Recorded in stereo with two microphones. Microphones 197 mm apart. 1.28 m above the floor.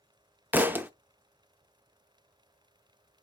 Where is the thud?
10° right (ahead or behind), 0.5 m.